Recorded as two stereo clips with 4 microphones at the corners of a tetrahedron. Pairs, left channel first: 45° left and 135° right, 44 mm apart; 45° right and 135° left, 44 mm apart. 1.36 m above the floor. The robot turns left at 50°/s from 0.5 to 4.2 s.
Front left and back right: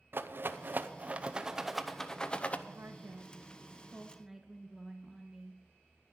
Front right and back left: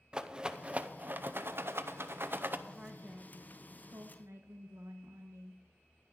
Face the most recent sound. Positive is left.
turn(degrees=145)